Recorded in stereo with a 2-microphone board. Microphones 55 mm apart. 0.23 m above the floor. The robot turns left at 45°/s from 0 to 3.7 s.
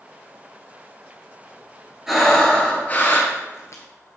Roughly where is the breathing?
Behind.